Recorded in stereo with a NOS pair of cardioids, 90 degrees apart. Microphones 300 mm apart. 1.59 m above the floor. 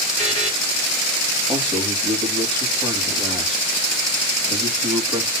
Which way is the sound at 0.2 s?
20° right.